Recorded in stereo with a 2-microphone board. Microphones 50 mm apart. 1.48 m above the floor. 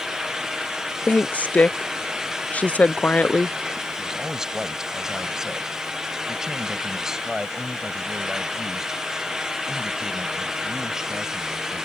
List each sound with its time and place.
1.1 s a woman speaking: 30° left (ahead or behind)
4.0 s a man speaking: 10° right (ahead or behind)